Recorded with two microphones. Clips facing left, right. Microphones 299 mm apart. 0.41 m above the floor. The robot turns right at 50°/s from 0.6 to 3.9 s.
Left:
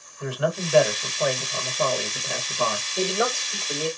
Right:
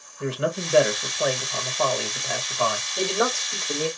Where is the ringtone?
I don't hear a ringtone.